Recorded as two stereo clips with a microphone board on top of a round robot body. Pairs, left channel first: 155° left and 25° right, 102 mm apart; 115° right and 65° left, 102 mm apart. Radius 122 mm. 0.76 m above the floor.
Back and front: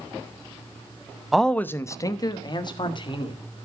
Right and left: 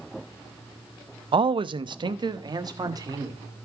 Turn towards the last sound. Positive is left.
turn(degrees=120)